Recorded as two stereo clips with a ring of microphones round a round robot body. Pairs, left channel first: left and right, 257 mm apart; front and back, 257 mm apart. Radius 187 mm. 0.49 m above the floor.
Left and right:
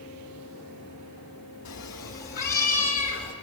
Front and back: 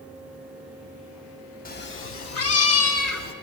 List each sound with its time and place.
1.6 s a cat meowing: 55° left, 0.6 m; by 3.3 s 10° left, 1.2 m